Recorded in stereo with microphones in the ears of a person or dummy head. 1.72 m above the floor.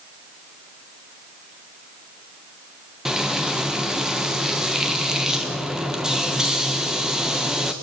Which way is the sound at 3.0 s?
Centre (ahead or behind).